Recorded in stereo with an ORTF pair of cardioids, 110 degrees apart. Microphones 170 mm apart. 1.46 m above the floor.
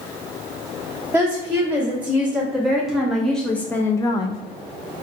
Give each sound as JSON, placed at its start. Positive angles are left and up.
{"t": 1.1, "sound": "a woman speaking", "azimuth_deg": -10, "distance_m": 2.0}